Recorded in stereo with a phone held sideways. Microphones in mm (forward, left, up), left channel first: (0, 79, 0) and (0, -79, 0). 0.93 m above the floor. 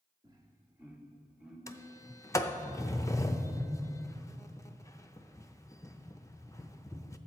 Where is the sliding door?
20° left (ahead or behind), 0.6 m.